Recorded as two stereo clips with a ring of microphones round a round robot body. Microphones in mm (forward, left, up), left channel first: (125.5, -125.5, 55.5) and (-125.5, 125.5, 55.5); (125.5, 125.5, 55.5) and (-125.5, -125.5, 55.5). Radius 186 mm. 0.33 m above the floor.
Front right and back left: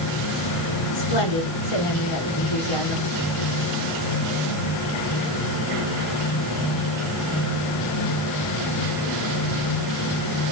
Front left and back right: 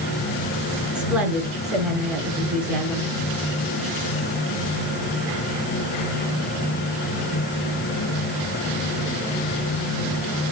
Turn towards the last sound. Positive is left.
turn(degrees=-45)